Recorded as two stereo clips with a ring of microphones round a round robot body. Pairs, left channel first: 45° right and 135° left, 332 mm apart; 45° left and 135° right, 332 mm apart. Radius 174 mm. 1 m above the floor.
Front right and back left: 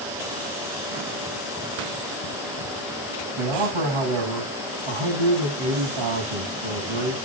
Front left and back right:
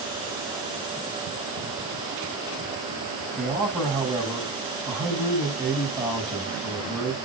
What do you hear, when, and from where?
3.4 s a man speaking: 155° left, 6.5 m